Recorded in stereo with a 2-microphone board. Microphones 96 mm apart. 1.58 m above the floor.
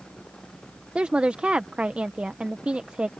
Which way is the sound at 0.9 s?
10° right (ahead or behind).